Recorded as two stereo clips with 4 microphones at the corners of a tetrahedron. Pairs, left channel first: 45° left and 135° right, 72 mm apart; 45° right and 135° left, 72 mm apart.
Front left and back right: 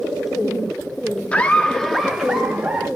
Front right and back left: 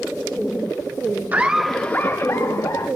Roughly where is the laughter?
Left.